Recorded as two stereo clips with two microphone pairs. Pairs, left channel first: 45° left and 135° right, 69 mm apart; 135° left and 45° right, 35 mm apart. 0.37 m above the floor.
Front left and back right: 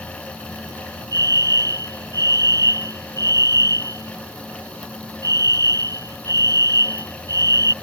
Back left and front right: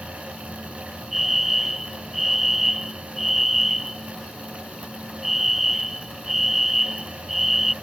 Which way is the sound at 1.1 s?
125° right.